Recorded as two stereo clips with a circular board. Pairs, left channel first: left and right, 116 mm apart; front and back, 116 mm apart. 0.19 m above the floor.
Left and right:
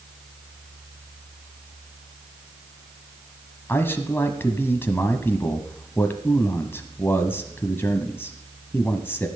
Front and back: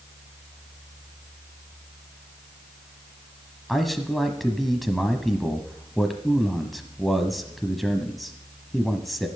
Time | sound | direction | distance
3.7 | a man speaking | 90° left | 1.0 m